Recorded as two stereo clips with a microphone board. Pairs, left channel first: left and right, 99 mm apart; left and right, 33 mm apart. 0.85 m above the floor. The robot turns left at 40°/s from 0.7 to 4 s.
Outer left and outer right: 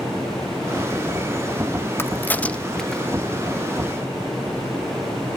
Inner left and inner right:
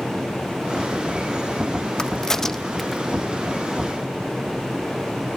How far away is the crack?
About 0.5 m.